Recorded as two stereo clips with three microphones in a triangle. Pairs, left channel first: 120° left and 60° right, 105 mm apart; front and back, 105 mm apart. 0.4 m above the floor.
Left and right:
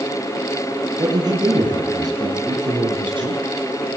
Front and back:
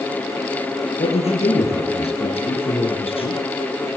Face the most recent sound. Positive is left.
turn(degrees=-20)